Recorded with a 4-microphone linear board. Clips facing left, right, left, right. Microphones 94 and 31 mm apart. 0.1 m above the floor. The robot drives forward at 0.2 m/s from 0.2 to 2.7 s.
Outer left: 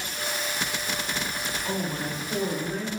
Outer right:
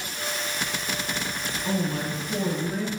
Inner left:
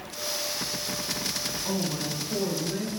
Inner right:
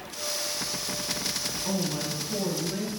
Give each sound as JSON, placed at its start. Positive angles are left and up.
{"t": 1.6, "sound": "a man speaking", "side_deg": -35, "distance_m": 1.7}